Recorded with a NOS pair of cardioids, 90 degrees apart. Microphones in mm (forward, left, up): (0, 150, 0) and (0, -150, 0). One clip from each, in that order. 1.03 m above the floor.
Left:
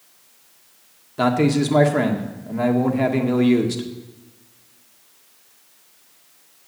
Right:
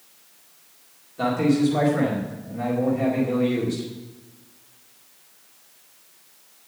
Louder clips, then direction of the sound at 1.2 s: Left 3 dB; 60° left.